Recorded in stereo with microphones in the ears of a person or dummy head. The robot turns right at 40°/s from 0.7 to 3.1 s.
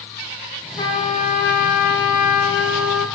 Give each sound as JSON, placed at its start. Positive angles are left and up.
{"t": 0.8, "sound": "a trumpet", "azimuth_deg": 25, "distance_m": 0.6}